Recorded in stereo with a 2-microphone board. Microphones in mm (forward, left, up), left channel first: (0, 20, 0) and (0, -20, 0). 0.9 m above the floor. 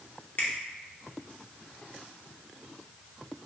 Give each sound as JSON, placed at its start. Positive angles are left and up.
{"t": 0.4, "sound": "a finger snap", "side_deg": 55, "distance_m": 0.6}